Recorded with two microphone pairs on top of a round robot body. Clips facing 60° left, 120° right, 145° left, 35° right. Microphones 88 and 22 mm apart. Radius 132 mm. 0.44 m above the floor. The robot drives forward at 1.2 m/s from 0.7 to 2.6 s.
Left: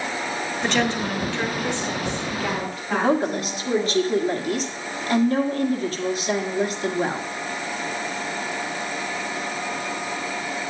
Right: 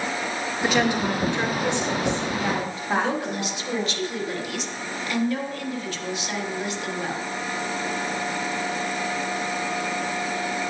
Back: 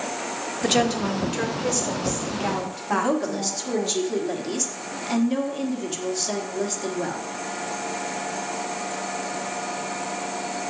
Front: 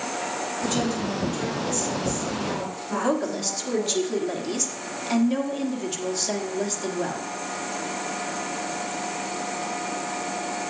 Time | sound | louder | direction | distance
0.6 | a woman speaking | right 2 dB, back 6 dB | 150° left | 1.3 m
2.9 | a woman speaking | left 4 dB, back 2 dB | 60° left | 1.5 m